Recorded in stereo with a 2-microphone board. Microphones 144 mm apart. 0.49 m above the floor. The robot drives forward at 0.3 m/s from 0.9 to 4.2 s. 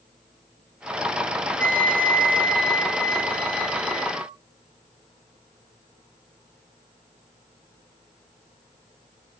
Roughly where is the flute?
Centre.